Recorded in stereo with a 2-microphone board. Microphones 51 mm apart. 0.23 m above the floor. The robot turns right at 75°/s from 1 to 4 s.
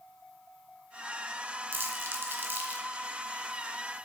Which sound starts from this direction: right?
Crumpling, at 1.7 s.